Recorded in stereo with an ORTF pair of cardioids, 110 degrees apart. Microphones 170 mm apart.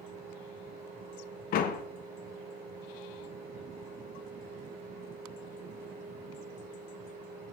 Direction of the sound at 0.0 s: 60° right.